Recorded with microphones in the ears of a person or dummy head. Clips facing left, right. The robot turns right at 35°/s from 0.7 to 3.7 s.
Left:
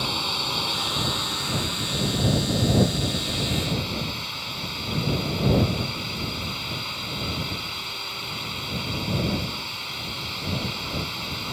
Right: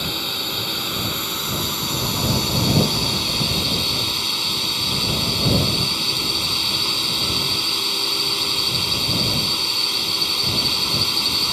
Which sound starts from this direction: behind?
A drone, at 0.0 s.